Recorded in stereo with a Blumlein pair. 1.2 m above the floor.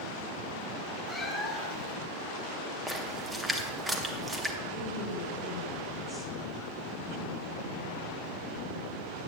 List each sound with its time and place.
1.1 s a cat meowing: straight ahead, 1.6 m
2.9 s a splash: 10° right, 1.2 m
4.7 s a woman speaking: 20° right, 3.5 m